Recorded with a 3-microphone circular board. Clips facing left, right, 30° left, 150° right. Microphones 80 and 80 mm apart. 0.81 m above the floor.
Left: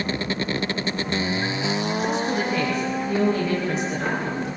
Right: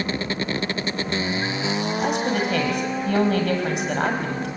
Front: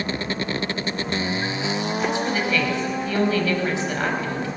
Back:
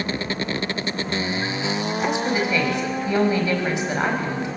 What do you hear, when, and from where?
2.0 s a woman speaking: 80° right, 5 m